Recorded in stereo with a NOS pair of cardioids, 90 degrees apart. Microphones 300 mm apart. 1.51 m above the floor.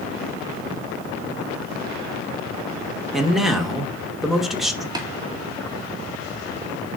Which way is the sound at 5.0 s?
15° right.